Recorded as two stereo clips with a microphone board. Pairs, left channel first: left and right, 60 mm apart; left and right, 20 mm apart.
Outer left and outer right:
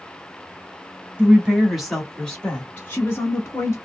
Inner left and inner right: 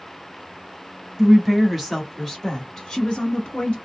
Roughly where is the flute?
No flute in this recording.